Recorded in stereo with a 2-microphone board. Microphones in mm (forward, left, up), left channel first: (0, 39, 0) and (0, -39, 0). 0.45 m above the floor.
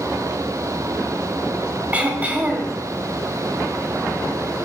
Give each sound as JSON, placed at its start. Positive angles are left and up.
{"t": 1.9, "sound": "throat clearing", "side_deg": -20, "distance_m": 1.6}